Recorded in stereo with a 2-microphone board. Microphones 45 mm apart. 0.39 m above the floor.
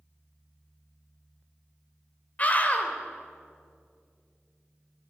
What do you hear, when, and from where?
2.4 s a scream: 35° left (ahead or behind), 1.8 m